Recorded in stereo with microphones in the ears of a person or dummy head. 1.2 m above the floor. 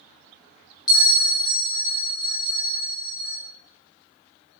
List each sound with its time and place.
0.9 s a bell: 20° left (ahead or behind), 1.5 m